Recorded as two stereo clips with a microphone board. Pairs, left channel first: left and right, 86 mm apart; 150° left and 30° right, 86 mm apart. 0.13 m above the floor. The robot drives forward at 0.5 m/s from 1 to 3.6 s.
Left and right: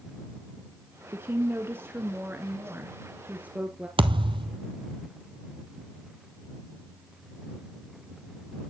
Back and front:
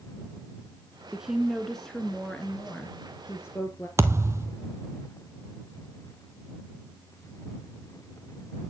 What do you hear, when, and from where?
1.1 s a woman speaking: 100° right, 1.1 m; by 3.9 s 160° right, 1.8 m
4.0 s a thud: 90° right, 0.7 m